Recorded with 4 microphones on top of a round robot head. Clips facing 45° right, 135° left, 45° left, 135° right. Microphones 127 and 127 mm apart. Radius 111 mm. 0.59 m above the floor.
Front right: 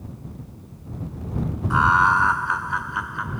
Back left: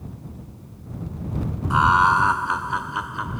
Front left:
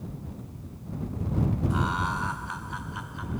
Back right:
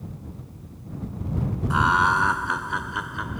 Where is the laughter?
155° right; by 3.4 s 160° right.